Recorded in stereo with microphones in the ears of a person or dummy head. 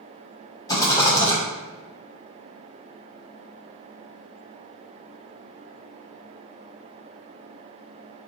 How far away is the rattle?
About 1.2 m.